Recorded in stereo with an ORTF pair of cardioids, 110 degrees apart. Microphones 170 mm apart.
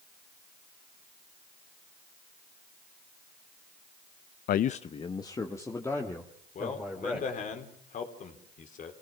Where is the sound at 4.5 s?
65° left, 0.5 m; by 7.5 s 10° left, 4 m.